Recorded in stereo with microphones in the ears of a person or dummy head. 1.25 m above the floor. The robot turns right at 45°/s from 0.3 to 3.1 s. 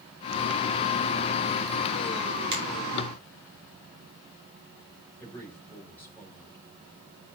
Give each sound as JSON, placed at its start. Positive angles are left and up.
{"t": 2.5, "sound": "a finger snap", "side_deg": -35, "distance_m": 5.0}
{"t": 5.2, "sound": "a man speaking", "side_deg": 10, "distance_m": 4.0}